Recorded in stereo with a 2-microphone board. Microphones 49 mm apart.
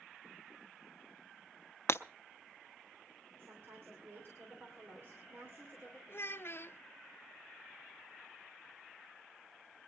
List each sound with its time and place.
1.9 s breaking glass: 55° left (ahead or behind), 0.6 m
3.4 s a woman speaking: 50° right (ahead or behind), 2.5 m
6.1 s a child speaking: 50° left (ahead or behind), 0.6 m